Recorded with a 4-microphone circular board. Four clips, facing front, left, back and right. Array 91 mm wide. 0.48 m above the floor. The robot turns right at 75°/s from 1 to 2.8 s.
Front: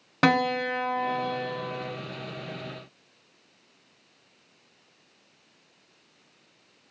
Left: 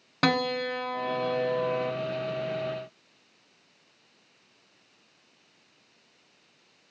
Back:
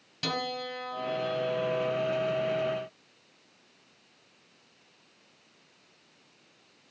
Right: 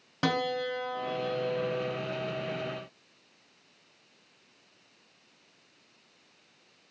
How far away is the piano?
About 1.1 m.